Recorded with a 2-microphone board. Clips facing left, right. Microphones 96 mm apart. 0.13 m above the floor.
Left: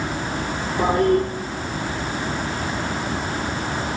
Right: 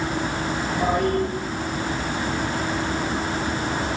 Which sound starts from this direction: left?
A toilet flushing, at 0.8 s.